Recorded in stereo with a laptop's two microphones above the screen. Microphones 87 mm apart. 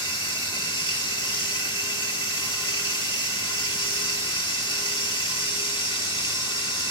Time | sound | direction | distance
0.0 | running water | 75° left (ahead or behind) | 1.4 m